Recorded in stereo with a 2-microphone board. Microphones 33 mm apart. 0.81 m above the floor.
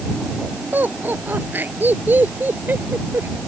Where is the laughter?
75° right (ahead or behind); by 3.3 s 80° right.